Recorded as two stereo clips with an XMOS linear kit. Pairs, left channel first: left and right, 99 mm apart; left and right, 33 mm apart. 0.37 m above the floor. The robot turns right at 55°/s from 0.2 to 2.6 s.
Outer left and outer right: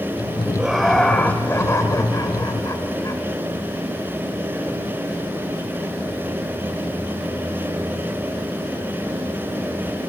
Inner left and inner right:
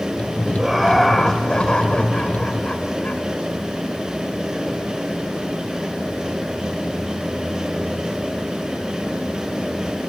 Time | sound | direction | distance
0.6 | laughter | 10° right | 1.3 m